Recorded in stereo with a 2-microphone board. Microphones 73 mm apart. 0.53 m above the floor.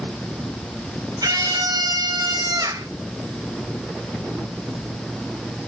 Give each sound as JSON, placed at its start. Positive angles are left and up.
{"t": 1.2, "sound": "a scream", "side_deg": -70, "distance_m": 4.0}